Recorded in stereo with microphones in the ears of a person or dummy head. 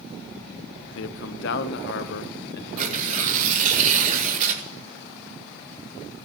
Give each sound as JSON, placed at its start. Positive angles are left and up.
{"t": 0.9, "sound": "a man speaking", "side_deg": 75, "distance_m": 0.8}
{"t": 2.8, "sound": "tearing paper", "side_deg": -50, "distance_m": 2.0}